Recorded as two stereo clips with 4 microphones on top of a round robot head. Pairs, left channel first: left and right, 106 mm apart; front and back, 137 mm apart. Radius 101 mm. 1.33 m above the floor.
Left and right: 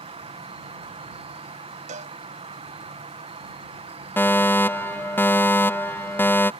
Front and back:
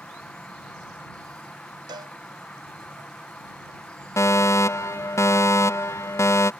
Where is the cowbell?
110° right.